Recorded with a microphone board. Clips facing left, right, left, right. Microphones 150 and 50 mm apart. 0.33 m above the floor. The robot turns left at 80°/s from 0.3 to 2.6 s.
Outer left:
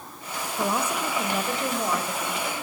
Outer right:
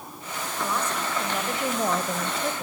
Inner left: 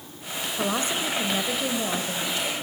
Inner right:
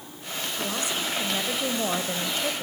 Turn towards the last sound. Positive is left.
turn(degrees=-90)